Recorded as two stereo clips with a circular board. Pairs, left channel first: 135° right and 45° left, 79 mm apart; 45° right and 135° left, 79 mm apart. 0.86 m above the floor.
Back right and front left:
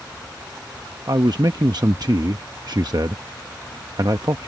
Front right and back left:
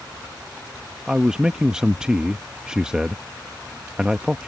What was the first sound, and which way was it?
A man speaking, 60° left.